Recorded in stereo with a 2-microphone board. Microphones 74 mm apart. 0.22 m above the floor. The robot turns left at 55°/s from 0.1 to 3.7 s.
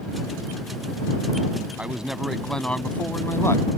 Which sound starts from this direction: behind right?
A man speaking, at 1.8 s.